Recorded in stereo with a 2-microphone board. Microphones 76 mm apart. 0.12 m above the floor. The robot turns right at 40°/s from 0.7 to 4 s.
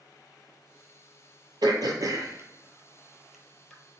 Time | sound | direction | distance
1.6 | throat clearing | 70° right (ahead or behind) | 0.6 m